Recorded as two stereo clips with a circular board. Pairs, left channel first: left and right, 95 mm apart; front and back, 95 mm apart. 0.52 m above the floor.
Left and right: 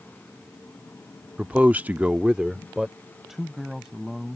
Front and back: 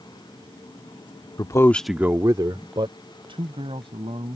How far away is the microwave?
No microwave in this recording.